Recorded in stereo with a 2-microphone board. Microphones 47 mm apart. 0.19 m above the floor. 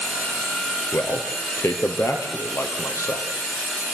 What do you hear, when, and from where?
0.9 s a man speaking: 70° left (ahead or behind), 3 m; by 3.3 s 80° left, 5.5 m